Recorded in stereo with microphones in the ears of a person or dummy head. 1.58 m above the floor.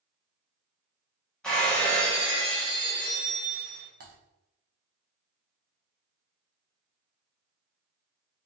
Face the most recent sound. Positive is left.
turn(degrees=-50)  # may be behind; listen again after turning